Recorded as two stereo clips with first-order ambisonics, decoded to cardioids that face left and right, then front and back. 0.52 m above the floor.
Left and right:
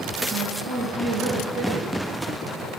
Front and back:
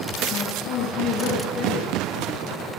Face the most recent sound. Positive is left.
turn(degrees=-40)